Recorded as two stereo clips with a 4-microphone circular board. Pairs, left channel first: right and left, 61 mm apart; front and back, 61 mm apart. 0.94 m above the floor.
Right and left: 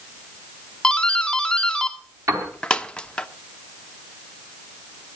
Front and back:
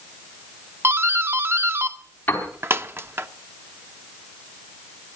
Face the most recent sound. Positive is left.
turn(degrees=60)